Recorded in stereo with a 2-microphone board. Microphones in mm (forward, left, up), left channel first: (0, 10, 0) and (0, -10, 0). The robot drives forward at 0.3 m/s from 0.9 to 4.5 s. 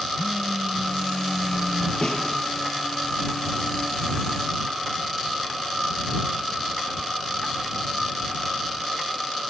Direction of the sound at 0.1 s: 35° right (ahead or behind).